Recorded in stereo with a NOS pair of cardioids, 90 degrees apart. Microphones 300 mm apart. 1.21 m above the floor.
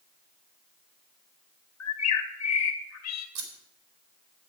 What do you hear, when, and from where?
1.8 s a bird: 60° left, 2.5 m
3.4 s scissors: 70° right, 3.5 m